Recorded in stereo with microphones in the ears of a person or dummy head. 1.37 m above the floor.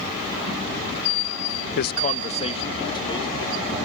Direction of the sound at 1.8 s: 60° left (ahead or behind).